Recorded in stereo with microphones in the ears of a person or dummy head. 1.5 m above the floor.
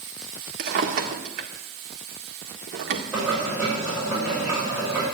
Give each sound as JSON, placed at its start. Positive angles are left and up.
{"t": 0.6, "sound": "a drawer", "side_deg": -50, "distance_m": 1.8}
{"t": 3.1, "sound": "boiling", "side_deg": -15, "distance_m": 7.5}